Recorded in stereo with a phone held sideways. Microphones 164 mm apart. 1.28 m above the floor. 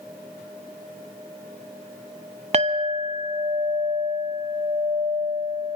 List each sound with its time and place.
2.5 s a clink: 40° right (ahead or behind), 1.1 m